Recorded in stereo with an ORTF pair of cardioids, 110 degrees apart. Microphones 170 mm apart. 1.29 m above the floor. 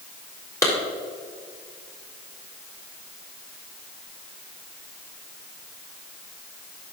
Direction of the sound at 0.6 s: 20° left.